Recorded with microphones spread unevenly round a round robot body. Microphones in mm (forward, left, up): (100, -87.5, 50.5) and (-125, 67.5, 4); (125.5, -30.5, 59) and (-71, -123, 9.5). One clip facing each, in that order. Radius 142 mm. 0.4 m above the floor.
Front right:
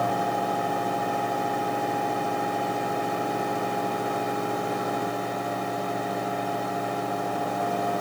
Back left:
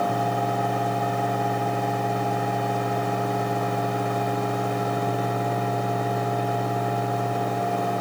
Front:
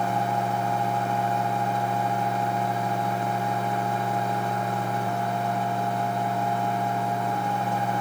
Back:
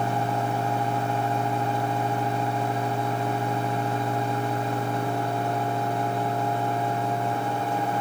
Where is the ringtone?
I don't hear a ringtone.